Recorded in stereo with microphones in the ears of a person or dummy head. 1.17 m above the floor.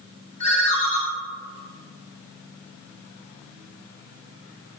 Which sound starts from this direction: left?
A ringtone, at 0.4 s.